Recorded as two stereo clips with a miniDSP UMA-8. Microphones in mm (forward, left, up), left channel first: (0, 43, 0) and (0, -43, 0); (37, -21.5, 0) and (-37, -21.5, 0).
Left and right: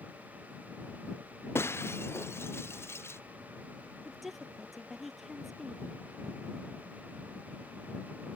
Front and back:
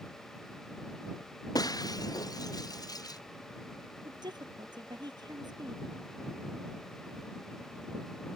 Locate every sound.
1.6 s breaking glass: 30° left
4.0 s a woman speaking: straight behind